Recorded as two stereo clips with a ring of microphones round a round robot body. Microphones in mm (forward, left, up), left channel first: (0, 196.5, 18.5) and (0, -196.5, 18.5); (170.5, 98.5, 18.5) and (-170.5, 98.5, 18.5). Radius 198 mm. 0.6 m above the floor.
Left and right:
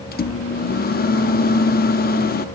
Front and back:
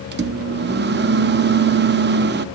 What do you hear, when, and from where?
0.1 s a microwave: 140° left, 0.5 m